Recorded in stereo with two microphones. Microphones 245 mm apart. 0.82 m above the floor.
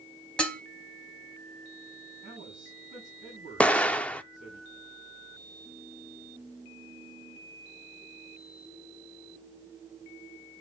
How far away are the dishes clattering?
About 1.8 m.